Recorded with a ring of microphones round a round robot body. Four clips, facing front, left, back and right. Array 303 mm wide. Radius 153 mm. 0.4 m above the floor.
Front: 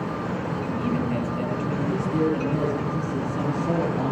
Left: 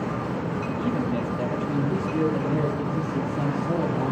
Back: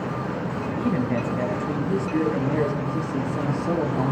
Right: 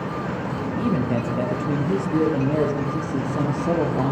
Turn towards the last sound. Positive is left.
turn(degrees=-100)